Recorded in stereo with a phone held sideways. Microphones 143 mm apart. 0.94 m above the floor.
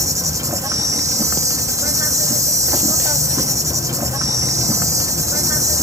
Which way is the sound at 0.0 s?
20° right (ahead or behind).